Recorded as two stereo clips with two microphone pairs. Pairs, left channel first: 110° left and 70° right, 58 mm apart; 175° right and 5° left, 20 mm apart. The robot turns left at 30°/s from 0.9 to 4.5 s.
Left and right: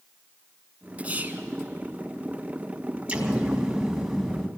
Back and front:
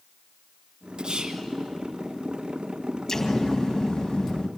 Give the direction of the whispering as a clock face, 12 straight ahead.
12 o'clock.